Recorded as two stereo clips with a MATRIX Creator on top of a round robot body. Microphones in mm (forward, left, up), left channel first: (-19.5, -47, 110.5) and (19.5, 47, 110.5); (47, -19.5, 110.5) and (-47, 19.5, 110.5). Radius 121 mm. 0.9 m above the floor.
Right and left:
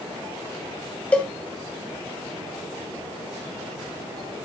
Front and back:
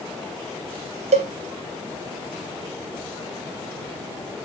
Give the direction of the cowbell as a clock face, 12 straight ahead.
6 o'clock.